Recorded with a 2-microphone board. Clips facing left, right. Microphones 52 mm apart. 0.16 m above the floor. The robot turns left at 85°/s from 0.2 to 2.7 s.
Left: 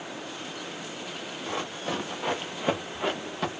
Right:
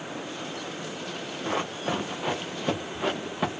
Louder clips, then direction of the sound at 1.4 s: Right 4 dB; 40° right (ahead or behind).